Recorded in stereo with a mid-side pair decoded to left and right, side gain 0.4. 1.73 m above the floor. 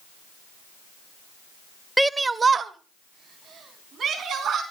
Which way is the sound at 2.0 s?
5° right.